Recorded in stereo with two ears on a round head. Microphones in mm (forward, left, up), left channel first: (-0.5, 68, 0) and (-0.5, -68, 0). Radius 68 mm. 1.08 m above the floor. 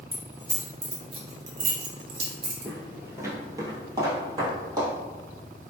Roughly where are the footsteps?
Centre.